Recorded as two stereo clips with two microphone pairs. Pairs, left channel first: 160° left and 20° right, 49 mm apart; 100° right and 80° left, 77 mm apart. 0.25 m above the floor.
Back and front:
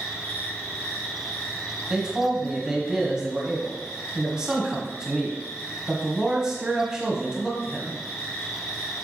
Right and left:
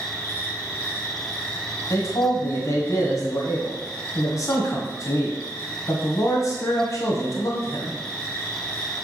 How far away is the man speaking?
About 1.6 m.